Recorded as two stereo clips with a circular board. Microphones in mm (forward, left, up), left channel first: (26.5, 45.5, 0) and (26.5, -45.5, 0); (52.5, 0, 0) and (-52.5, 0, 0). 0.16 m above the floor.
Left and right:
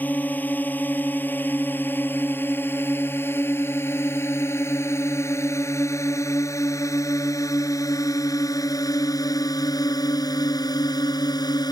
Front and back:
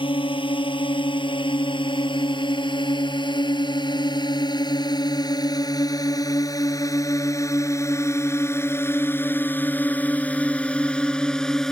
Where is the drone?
20° left; by 11.7 s 85° left.